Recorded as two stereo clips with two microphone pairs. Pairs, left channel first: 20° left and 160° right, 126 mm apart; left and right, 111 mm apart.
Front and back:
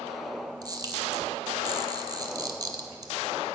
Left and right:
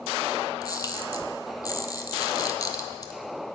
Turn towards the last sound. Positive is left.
turn(degrees=145)